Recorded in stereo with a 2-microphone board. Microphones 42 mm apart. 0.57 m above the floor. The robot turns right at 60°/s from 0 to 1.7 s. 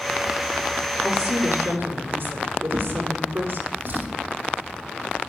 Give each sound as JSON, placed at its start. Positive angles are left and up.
{"t": 1.0, "sound": "a woman speaking", "azimuth_deg": -160, "distance_m": 7.5}
{"t": 2.7, "sound": "a drawer", "side_deg": -55, "distance_m": 5.5}